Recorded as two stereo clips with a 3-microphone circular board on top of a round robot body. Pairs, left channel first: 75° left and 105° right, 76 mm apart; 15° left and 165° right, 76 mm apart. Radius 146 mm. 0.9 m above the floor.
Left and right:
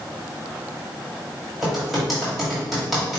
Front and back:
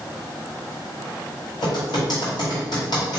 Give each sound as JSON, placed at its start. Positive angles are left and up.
{"t": 1.6, "sound": "typing on a keyboard", "azimuth_deg": -15, "distance_m": 1.6}